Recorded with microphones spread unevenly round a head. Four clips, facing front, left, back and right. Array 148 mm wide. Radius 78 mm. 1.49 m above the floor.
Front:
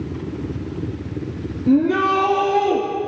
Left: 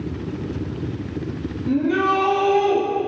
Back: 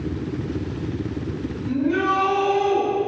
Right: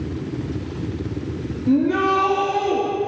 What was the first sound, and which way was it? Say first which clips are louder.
A shout: right 2 dB, front 5 dB; 15° right.